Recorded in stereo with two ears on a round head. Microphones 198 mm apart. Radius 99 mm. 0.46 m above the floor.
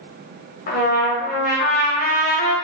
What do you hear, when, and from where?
0.7 s a trumpet: 40° left (ahead or behind), 1.1 m